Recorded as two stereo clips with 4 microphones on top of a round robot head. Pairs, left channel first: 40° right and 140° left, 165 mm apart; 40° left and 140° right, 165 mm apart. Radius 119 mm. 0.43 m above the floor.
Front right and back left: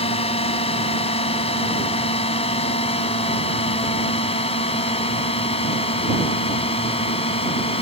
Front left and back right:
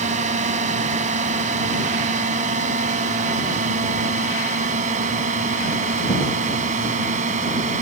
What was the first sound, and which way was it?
A drone, 95° right.